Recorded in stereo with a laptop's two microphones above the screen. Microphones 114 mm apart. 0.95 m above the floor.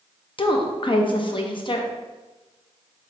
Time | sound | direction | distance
0.4 | a woman speaking | 45° left (ahead or behind) | 0.5 m